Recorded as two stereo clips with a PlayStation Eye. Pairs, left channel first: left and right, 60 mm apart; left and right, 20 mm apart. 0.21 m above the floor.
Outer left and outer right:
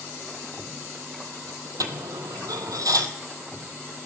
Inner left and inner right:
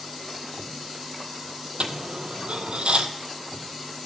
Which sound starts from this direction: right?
A dropped coin, at 1.8 s.